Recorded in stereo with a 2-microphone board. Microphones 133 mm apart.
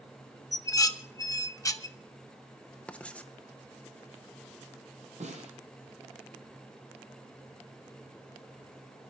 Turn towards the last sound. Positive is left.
turn(degrees=-65)  # may be behind; listen again after turning